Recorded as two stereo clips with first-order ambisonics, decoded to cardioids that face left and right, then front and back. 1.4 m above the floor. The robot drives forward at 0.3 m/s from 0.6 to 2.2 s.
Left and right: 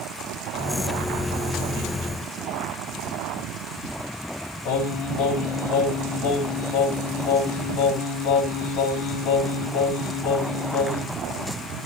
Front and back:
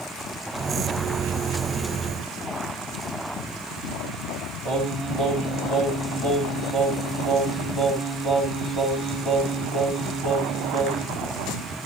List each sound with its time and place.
4.7 s singing: 125° left, 3.5 m